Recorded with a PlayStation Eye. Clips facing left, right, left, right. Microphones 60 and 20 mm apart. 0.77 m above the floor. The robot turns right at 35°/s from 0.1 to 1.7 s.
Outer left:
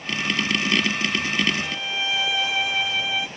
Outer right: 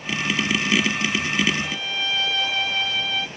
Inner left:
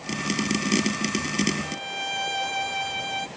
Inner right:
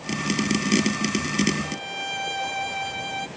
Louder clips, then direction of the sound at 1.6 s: Even, even; 10° left (ahead or behind).